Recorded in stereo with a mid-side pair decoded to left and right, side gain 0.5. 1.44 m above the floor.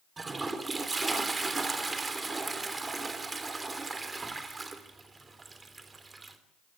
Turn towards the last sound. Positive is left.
turn(degrees=-25)